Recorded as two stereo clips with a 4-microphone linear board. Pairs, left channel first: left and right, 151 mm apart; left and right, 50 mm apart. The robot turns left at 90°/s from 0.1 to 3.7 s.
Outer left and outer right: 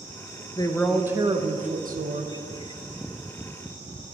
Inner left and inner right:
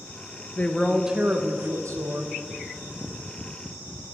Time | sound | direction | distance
0.6 | a woman speaking | 30° left | 0.6 m